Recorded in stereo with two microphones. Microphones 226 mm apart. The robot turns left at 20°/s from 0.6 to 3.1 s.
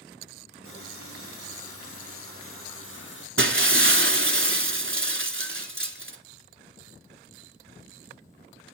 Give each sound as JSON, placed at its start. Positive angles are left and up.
{"t": 0.6, "sound": "a running tap", "azimuth_deg": 110, "distance_m": 5.0}
{"t": 3.4, "sound": "breaking glass", "side_deg": -60, "distance_m": 0.8}